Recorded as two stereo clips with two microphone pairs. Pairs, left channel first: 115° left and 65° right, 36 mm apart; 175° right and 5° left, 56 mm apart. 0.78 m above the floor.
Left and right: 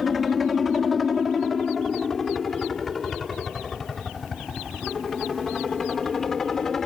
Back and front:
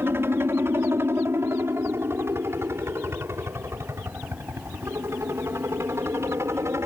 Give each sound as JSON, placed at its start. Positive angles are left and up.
{"t": 0.0, "sound": "a helicopter", "azimuth_deg": 25}